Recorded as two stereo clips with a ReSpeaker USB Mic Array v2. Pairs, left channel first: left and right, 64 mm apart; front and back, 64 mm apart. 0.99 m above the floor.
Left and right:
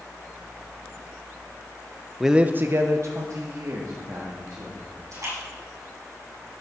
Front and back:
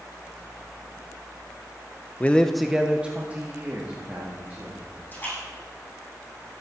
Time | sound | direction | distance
2.2 | a man speaking | 5° right | 0.5 m
5.1 | a splash | 60° right | 6 m